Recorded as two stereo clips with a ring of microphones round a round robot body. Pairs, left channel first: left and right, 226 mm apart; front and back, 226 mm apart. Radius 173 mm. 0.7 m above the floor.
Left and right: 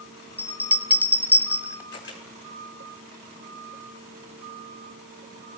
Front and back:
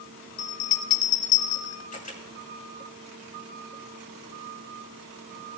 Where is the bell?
5° right, 1.3 m.